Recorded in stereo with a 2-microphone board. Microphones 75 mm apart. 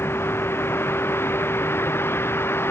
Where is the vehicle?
30° left (ahead or behind).